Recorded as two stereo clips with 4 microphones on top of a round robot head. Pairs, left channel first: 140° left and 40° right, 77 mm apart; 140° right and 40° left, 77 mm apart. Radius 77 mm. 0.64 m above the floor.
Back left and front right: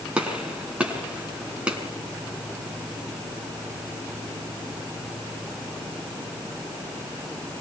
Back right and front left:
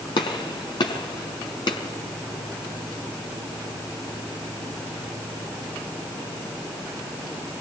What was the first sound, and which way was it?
A gunshot, 115° right.